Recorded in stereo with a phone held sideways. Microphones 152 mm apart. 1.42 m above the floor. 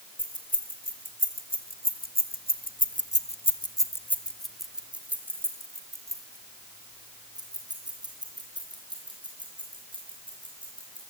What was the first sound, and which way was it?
Keys jangling, 60° left (ahead or behind).